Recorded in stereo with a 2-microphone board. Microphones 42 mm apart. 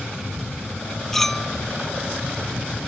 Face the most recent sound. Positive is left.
turn(degrees=5)  # may be behind; listen again after turning